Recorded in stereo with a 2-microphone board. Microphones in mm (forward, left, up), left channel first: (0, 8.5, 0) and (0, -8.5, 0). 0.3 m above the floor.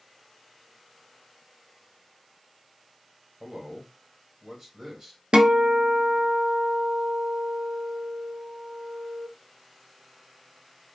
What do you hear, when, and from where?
3.4 s a man speaking: 30° right (ahead or behind), 1.7 m
5.3 s a guitar: 75° right (ahead or behind), 0.6 m